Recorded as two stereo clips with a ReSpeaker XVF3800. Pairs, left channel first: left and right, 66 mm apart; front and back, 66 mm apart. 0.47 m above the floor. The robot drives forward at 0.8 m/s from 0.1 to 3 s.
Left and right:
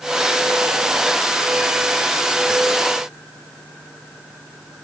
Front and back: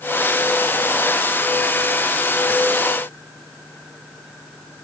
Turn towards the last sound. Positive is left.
No sound to turn to.